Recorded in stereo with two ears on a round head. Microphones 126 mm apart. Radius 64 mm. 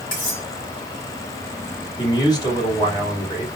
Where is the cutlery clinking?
65° left (ahead or behind), 3.5 m.